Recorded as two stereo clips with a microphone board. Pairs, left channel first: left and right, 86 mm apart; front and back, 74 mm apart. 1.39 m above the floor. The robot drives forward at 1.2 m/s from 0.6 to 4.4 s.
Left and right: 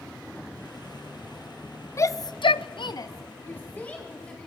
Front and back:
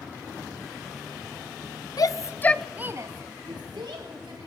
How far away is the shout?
About 0.9 m.